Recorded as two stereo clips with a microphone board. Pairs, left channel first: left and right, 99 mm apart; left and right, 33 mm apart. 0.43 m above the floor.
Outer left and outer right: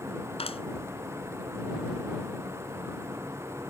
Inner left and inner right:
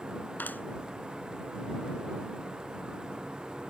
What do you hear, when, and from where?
0.4 s a clap: 80° left